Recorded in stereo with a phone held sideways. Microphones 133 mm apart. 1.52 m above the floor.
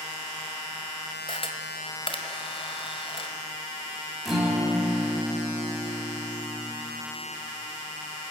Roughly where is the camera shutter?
Left.